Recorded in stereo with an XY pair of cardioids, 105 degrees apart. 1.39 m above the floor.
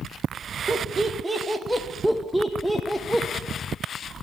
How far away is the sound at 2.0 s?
About 1.4 m.